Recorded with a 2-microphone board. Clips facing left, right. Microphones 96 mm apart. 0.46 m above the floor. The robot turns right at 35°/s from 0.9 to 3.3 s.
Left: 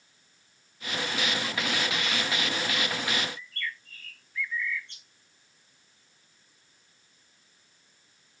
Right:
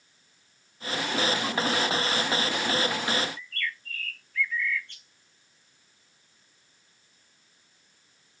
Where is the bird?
20° left (ahead or behind), 1.0 m.